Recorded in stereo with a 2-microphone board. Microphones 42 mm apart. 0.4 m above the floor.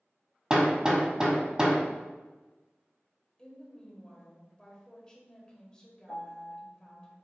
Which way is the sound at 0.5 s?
20° right (ahead or behind).